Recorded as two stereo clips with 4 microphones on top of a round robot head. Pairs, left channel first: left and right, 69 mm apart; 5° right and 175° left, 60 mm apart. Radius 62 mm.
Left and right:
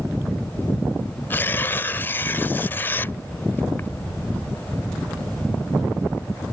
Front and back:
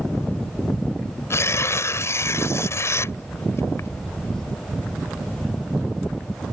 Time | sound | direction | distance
1.3 | tearing paper | 25° left | ?